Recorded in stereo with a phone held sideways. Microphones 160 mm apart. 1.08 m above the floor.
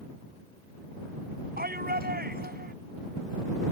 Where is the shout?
75° right (ahead or behind).